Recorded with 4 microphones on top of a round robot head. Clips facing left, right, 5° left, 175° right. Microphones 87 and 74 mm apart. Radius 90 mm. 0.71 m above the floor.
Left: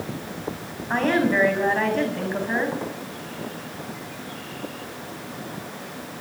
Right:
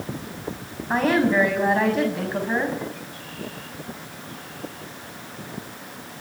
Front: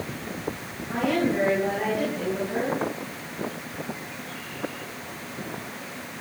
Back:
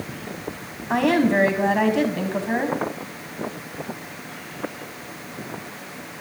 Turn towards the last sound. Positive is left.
turn(degrees=-175)